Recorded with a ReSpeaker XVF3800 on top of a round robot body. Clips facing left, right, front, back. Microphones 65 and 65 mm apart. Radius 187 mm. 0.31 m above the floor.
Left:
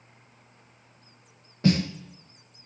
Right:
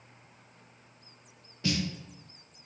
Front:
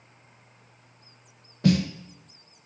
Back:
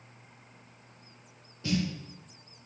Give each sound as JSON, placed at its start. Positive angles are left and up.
{"t": 1.6, "sound": "a snare drum", "azimuth_deg": 35, "distance_m": 0.5}